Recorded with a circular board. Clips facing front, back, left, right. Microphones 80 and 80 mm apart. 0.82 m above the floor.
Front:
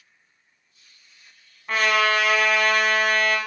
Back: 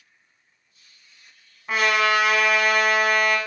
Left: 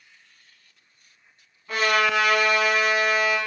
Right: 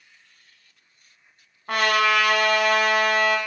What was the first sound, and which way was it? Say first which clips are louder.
A trumpet: even, right 1 dB; 100° right.